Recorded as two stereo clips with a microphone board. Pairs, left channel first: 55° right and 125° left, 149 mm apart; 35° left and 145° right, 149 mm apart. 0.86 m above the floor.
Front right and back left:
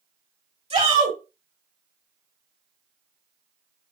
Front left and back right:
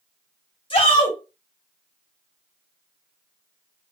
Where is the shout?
85° left, 2.5 m.